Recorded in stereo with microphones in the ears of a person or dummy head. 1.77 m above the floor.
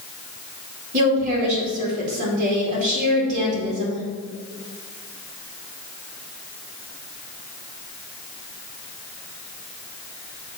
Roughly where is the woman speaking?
Right.